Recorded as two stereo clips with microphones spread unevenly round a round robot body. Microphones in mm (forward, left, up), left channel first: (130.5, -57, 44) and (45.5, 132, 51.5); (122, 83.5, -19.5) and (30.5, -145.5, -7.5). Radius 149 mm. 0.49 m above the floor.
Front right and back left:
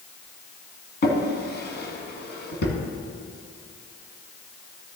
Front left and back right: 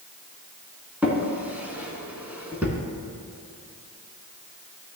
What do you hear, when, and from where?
1.0 s a drawer: 30° right, 2 m